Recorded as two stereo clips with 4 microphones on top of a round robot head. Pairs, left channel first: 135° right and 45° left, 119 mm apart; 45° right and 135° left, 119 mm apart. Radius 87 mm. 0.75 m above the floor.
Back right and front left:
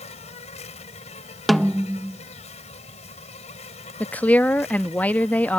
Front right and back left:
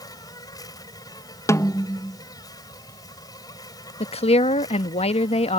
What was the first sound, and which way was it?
An insect, 105° right.